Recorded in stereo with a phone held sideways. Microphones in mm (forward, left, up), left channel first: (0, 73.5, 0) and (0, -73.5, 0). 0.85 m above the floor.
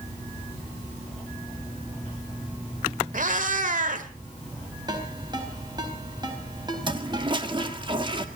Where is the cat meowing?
65° right (ahead or behind), 1.5 m.